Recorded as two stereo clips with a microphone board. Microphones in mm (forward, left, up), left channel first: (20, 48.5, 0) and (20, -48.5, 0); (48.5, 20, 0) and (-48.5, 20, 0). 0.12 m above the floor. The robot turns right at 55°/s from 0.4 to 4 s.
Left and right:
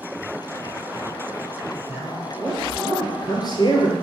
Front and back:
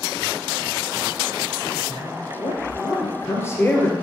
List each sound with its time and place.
1.9 s a man speaking: 30° right, 2 m; by 3.9 s 85° left, 2 m